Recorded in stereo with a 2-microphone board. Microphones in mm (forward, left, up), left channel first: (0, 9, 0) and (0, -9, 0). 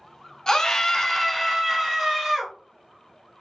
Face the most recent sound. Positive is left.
turn(degrees=-15)  # may be behind; listen again after turning